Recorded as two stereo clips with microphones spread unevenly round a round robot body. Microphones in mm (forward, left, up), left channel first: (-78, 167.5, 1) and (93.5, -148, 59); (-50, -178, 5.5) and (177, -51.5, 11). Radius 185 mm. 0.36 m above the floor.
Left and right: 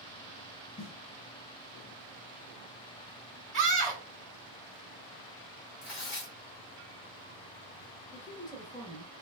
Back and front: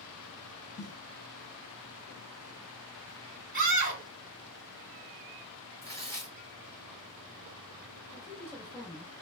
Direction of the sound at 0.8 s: 170° left.